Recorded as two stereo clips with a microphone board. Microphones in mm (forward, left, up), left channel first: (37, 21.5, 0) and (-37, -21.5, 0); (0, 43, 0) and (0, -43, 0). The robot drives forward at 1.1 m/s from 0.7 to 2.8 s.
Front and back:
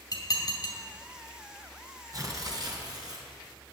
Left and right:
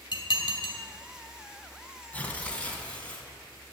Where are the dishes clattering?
70° left, 2.5 m.